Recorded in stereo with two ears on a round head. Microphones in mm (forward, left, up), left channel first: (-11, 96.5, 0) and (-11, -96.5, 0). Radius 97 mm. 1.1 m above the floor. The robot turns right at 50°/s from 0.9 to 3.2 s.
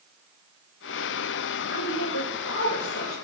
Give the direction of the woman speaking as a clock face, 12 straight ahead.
10 o'clock.